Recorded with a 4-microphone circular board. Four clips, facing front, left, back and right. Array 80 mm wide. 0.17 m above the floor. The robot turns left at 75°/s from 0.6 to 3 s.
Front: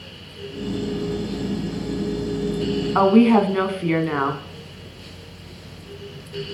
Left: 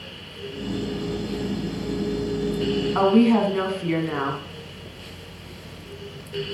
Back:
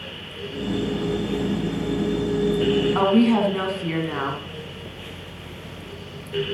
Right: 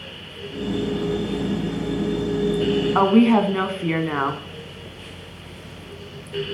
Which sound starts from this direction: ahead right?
A woman speaking, at 3.0 s.